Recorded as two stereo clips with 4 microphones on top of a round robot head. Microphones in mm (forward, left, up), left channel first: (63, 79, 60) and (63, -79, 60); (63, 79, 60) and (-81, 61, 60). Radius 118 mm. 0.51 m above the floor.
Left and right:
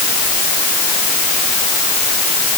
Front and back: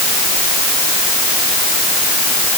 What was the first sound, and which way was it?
Only background noise.